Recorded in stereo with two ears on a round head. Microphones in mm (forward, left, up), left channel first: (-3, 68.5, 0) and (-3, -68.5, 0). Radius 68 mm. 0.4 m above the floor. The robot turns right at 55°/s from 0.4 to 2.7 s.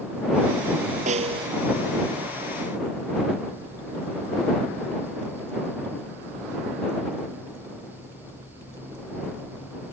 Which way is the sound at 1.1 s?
50° right (ahead or behind).